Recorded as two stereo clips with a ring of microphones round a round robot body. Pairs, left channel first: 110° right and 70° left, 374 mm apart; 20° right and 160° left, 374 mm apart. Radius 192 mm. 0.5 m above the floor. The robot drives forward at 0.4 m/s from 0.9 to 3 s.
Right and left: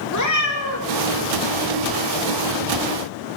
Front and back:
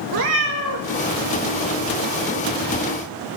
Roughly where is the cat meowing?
Behind.